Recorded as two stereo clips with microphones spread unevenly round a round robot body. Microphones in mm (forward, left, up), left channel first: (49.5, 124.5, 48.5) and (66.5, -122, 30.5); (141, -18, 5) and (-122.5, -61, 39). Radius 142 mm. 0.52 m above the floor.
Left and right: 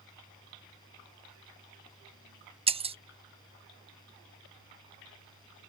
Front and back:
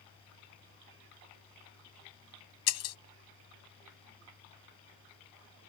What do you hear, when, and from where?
2.7 s breaking glass: 20° right